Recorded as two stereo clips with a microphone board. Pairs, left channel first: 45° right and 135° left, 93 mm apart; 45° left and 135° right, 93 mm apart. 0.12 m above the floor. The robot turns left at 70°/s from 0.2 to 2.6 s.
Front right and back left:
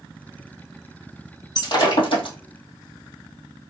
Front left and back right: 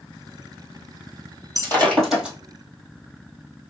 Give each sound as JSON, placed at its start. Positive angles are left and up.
{"t": 1.6, "sound": "breaking glass", "azimuth_deg": -5, "distance_m": 1.7}